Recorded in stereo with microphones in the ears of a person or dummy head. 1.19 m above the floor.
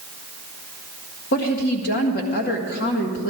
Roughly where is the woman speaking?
Left.